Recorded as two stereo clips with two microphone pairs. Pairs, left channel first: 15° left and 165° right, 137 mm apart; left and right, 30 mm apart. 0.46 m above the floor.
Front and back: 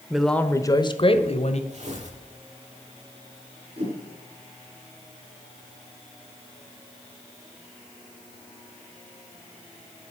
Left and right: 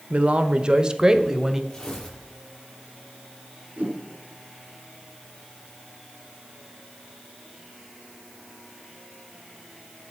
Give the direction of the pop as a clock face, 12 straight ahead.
I don't hear a pop.